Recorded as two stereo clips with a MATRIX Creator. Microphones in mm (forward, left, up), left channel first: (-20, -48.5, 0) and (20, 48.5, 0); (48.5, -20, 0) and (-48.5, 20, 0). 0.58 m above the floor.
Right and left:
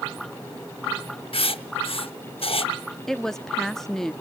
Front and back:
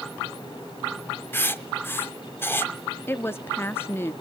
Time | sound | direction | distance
1.3 | writing | 90° right | 0.6 m
3.1 | a woman speaking | 35° right | 0.6 m